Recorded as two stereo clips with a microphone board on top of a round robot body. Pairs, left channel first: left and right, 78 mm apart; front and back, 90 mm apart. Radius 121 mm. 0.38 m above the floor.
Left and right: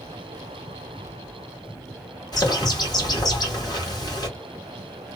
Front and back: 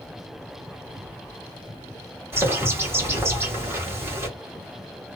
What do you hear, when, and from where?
2.3 s a bird: 120° left, 1.6 m